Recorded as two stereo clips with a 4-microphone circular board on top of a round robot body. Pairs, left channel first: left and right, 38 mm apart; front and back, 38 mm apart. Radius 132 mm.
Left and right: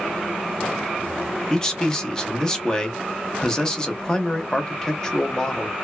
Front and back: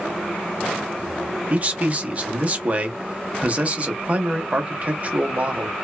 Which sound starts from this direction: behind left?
A man speaking, at 1.5 s.